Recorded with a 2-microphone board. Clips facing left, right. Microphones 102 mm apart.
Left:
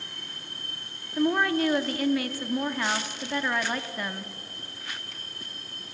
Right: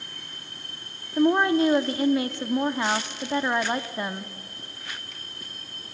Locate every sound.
1.2 s a woman speaking: 25° right (ahead or behind), 0.7 m